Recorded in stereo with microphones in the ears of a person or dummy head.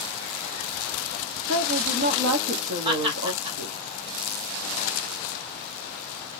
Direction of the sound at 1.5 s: 60° right (ahead or behind).